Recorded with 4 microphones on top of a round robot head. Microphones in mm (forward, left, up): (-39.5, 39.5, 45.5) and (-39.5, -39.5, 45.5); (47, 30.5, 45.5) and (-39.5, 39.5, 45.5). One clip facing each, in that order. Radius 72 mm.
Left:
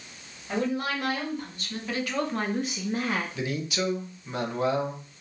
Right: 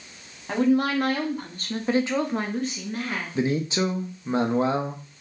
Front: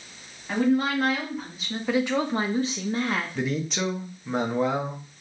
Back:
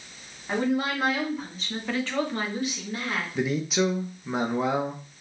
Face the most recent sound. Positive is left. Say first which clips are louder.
# right 6 dB, back 3 dB
turn(degrees=-105)